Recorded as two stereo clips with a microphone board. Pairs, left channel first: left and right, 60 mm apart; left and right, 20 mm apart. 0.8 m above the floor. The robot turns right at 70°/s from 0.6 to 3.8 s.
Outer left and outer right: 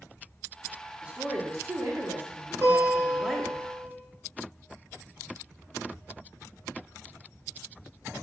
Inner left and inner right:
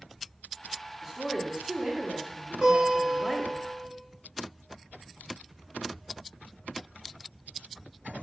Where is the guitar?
40° right, 3.5 m; by 3.9 s 40° left, 3.5 m.